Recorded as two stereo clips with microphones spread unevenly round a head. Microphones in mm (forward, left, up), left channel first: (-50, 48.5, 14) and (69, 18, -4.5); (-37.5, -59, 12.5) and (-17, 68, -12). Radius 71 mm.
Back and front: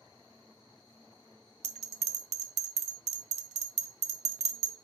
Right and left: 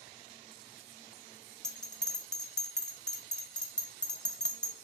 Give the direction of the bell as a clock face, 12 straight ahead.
12 o'clock.